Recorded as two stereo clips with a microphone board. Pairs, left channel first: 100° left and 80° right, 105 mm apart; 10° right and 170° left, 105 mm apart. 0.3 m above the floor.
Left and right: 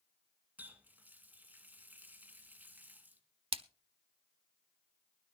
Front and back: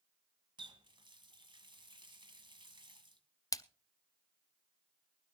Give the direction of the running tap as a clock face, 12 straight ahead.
5 o'clock.